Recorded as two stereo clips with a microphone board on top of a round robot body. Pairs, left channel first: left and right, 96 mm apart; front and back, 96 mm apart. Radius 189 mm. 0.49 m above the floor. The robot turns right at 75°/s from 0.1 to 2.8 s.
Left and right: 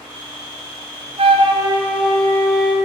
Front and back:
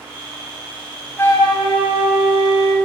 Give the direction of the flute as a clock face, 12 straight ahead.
2 o'clock.